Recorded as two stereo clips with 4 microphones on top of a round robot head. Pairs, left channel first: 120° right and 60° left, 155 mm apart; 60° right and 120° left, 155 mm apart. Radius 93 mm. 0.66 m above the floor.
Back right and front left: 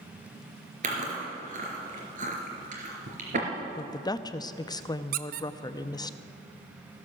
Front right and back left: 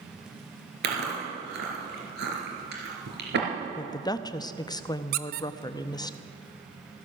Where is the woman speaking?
90° right, 0.6 m.